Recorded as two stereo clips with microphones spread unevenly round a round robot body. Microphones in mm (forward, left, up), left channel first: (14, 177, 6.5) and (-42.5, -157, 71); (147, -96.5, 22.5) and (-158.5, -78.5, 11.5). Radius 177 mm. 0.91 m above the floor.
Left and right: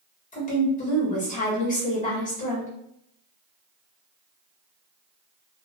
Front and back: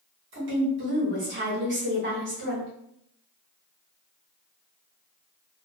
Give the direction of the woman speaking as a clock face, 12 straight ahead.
8 o'clock.